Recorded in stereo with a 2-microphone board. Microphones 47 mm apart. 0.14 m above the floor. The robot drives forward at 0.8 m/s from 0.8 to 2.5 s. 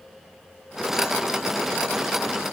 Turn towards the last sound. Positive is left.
No sound to turn to.